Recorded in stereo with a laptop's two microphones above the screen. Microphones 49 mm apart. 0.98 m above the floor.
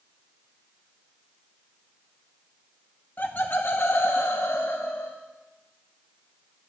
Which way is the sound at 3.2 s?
40° left (ahead or behind).